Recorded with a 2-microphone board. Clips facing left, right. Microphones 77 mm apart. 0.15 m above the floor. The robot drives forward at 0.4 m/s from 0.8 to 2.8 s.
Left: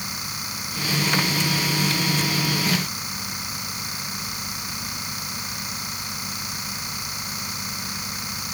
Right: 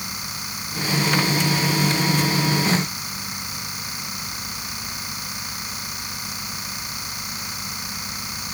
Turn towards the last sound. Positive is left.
No sound to turn to.